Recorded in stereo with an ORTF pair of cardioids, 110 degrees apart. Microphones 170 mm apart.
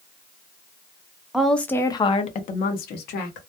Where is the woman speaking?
5° right, 0.7 m; by 3.4 s 80° left, 0.9 m.